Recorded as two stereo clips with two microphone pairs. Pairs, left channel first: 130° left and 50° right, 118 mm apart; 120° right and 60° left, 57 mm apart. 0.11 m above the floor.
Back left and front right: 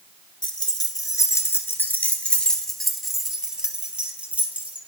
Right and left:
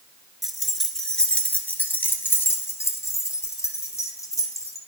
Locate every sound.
0.4 s keys jangling: 140° left, 1.3 m; by 4.8 s 125° right, 2.5 m